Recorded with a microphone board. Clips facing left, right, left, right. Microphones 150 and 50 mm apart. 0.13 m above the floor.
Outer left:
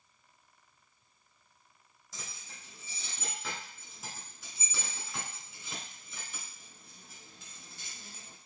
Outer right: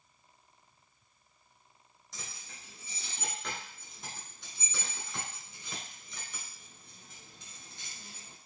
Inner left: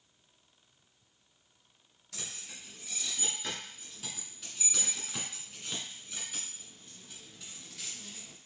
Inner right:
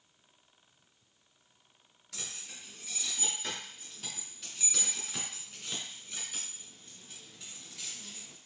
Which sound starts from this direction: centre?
Keys jangling, at 2.1 s.